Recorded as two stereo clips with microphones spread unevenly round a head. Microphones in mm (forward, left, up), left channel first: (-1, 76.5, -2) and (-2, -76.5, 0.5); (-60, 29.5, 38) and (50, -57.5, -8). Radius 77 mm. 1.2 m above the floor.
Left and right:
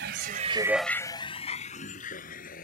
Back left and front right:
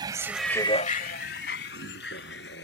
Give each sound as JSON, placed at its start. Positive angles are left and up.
{"t": 0.0, "sound": "a vehicle", "azimuth_deg": -105}